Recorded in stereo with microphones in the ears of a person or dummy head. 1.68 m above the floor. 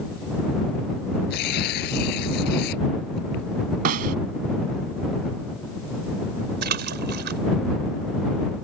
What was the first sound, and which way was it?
Tearing paper, 55° left (ahead or behind).